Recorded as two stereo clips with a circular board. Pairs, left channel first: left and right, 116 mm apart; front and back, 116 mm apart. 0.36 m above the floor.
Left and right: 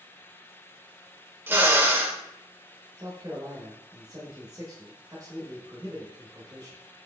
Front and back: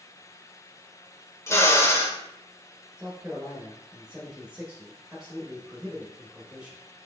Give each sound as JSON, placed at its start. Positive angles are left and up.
{"t": 1.5, "sound": "a drill", "azimuth_deg": -35, "distance_m": 0.6}
{"t": 3.0, "sound": "a man speaking", "azimuth_deg": -110, "distance_m": 0.9}